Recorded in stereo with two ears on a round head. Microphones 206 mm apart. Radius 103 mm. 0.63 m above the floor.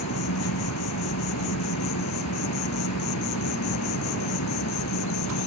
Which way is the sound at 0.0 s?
85° left.